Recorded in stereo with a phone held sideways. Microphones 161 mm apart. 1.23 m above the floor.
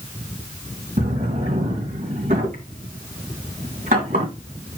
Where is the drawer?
60° right (ahead or behind), 3 m.